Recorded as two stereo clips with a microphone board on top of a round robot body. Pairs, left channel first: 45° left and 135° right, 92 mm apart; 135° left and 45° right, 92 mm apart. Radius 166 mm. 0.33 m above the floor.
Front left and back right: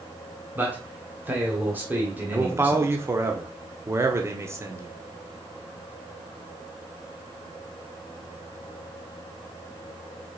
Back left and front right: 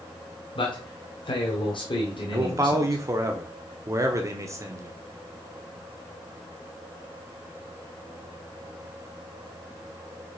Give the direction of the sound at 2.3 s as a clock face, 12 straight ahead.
3 o'clock.